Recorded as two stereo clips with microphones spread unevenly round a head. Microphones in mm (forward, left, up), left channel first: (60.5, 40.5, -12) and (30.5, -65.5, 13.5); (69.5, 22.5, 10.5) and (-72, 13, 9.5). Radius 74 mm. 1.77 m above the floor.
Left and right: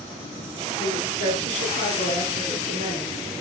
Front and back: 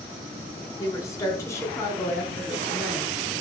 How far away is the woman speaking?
About 5.5 m.